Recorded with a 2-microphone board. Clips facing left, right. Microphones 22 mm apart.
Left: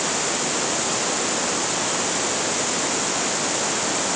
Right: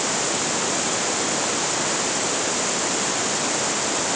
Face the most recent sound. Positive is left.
No sound to turn to.